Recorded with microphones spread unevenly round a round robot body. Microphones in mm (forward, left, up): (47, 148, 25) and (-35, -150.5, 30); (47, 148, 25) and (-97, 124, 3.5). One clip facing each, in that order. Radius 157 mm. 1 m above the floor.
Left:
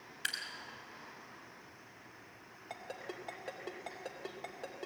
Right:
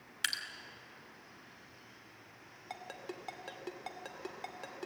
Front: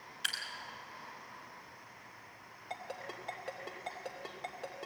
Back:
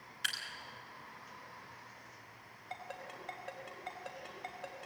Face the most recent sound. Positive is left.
turn(degrees=-35)